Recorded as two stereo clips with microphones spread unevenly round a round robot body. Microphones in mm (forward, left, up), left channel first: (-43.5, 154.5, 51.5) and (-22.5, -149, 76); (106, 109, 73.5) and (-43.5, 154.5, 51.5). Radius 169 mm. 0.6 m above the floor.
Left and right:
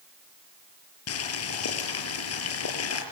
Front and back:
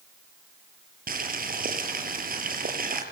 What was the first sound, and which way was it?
Boiling, 135° left.